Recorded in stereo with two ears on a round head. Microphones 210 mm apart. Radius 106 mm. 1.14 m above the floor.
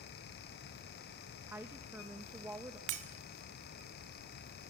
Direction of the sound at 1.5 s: 10° right (ahead or behind).